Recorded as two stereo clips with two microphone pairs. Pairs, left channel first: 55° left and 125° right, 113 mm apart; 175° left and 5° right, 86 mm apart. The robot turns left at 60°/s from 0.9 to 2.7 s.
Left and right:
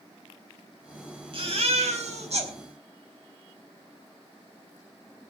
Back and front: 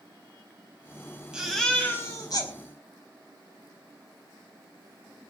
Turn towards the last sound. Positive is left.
turn(degrees=-165)